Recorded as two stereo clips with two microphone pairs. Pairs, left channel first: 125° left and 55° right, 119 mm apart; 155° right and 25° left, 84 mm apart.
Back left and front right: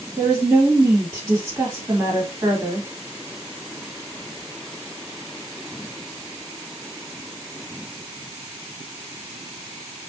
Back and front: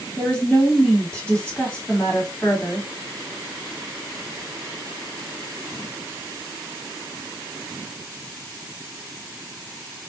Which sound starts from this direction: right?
A woman speaking, at 0.2 s.